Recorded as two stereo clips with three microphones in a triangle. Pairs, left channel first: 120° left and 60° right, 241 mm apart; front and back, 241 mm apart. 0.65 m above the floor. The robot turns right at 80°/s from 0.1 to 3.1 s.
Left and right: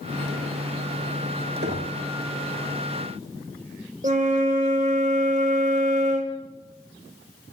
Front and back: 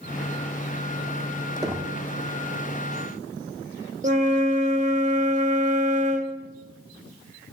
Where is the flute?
115° right, 0.6 m.